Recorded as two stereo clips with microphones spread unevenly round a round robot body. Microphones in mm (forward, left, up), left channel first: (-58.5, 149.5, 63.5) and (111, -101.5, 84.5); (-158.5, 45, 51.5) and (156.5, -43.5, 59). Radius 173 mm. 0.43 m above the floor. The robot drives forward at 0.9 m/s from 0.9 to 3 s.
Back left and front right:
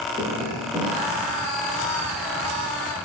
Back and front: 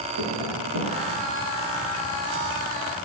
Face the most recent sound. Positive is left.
turn(degrees=20)